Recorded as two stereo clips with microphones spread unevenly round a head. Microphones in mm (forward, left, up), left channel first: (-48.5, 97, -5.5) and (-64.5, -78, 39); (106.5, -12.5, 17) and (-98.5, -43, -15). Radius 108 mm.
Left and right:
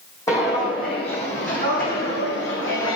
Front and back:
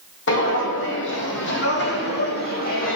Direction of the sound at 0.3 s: Straight ahead.